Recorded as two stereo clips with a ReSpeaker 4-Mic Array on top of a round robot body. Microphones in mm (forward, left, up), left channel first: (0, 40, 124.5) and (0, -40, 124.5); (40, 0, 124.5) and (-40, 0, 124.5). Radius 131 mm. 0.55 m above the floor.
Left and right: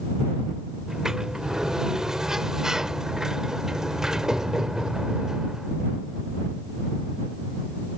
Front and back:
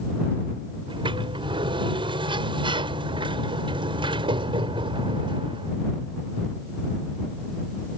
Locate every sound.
0.9 s a sliding door: 175° right